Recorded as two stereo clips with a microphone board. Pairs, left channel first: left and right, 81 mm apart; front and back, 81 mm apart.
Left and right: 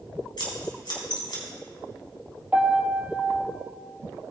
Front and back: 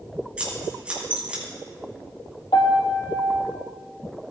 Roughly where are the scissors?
Left.